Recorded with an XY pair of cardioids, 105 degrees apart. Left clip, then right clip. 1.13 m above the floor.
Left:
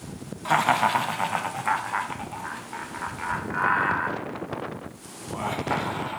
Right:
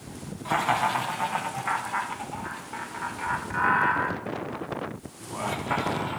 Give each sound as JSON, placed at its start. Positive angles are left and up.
{"t": 0.5, "sound": "laughter", "azimuth_deg": 45, "distance_m": 1.7}